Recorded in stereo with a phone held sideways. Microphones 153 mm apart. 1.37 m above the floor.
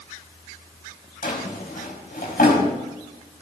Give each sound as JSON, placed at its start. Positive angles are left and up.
{"t": 1.2, "sound": "a drawer", "side_deg": 75, "distance_m": 4.5}